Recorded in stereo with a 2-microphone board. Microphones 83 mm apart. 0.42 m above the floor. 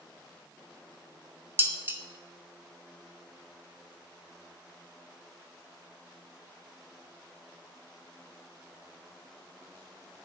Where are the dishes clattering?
25° right (ahead or behind), 0.6 m.